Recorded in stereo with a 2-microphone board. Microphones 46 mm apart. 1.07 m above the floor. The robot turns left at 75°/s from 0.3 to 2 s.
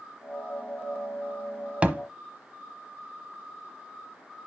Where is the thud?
25° right (ahead or behind), 1.0 m; by 2.0 s 30° right (ahead or behind), 1.0 m.